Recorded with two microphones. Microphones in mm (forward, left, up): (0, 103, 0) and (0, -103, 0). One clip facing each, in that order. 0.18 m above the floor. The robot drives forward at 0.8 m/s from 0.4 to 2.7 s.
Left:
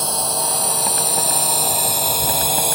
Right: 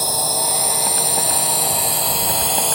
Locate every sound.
0.0 s a drone: 5° right (ahead or behind); by 2.8 s 10° left (ahead or behind)